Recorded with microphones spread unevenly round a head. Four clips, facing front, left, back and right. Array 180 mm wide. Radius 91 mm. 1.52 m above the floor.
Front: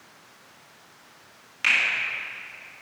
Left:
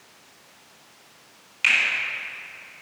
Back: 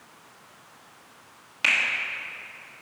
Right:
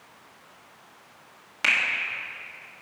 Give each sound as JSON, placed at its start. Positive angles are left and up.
{"t": 1.6, "sound": "a finger snap", "azimuth_deg": -120, "distance_m": 1.6}